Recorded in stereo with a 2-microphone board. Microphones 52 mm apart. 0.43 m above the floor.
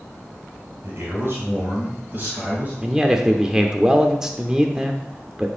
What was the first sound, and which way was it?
A man speaking, 55° right (ahead or behind).